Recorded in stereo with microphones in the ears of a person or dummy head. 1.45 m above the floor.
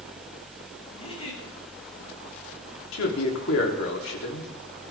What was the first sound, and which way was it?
A giggle, 40° left (ahead or behind).